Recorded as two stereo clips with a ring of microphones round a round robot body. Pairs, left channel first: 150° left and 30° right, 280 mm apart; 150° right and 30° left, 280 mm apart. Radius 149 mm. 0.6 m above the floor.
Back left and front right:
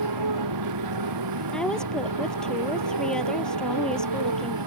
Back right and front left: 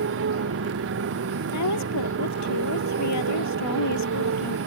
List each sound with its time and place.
0.0 s a motorcycle: 15° right
1.5 s a woman speaking: 125° right